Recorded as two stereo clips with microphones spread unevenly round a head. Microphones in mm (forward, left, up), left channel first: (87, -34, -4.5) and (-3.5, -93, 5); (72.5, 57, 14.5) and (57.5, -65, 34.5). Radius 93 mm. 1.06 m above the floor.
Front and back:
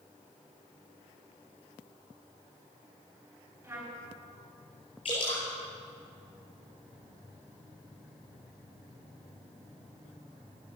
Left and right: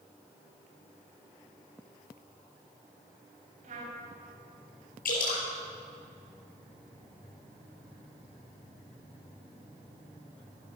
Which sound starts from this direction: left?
Dripping, at 5.0 s.